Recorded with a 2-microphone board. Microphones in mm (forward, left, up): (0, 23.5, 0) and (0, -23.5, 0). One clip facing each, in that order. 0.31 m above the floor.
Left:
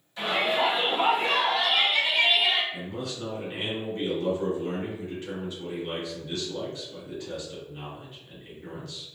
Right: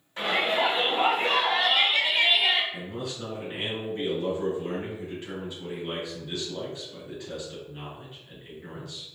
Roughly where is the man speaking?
Centre.